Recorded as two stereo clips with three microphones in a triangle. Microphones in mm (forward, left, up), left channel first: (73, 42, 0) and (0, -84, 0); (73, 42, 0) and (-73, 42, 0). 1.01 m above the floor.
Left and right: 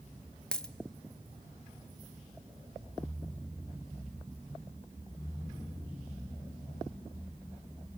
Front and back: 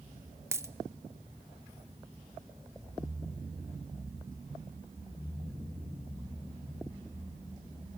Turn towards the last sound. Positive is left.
turn(degrees=135)